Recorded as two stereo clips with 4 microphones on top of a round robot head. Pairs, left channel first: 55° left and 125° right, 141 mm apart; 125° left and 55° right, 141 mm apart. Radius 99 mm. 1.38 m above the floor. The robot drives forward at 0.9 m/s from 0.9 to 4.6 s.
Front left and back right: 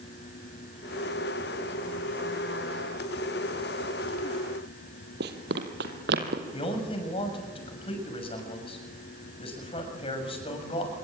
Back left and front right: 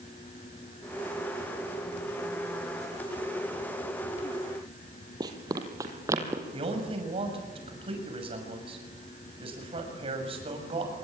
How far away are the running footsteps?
About 2.5 m.